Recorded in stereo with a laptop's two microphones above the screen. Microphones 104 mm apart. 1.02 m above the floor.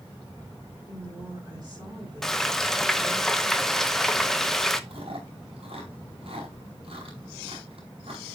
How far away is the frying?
About 0.8 m.